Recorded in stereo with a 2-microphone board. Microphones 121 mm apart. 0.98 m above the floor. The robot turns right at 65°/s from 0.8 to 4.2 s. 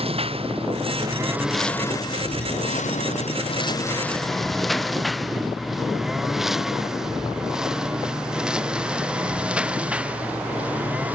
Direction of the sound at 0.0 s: 55° right (ahead or behind).